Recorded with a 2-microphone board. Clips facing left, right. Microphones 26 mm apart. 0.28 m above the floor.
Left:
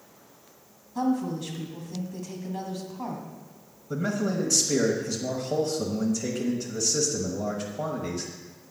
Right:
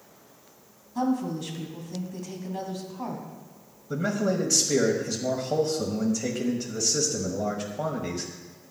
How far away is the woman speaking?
About 1.8 m.